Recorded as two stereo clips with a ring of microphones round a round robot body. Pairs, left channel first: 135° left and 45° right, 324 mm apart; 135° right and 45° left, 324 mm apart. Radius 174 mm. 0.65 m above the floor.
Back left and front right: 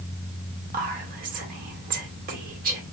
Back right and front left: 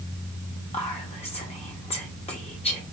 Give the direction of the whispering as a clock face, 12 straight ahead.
3 o'clock.